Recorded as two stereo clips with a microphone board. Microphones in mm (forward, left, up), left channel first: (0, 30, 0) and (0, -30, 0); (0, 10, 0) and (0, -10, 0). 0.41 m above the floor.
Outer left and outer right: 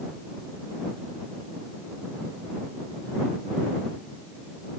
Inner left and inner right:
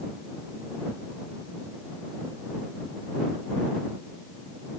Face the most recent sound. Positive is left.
No sound to turn to.